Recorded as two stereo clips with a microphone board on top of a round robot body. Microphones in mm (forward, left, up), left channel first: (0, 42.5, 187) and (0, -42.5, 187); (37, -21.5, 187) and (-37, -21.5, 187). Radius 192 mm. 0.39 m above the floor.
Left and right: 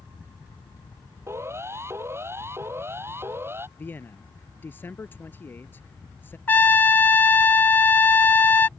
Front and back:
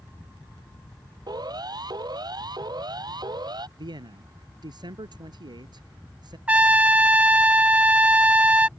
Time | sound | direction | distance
1.3 | a siren | 150° right | ?
3.8 | a man speaking | 160° left | ?
6.5 | a trumpet | 130° left | ?